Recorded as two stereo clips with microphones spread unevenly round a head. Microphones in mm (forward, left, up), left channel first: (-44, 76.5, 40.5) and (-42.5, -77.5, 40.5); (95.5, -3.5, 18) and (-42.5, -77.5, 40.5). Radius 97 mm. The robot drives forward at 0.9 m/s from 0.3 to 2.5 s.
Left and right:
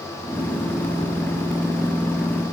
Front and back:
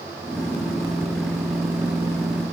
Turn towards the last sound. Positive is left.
No sound to turn to.